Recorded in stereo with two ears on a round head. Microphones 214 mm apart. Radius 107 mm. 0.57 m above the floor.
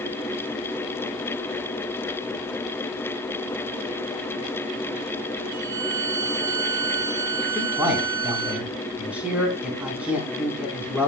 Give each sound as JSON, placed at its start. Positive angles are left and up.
{"t": 5.5, "sound": "a violin", "side_deg": -85, "distance_m": 7.0}
{"t": 7.5, "sound": "a man speaking", "side_deg": -5, "distance_m": 4.5}